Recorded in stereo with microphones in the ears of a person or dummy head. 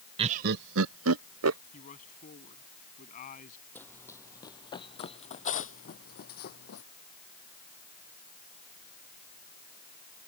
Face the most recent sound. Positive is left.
turn(degrees=55)  # may be behind; listen again after turning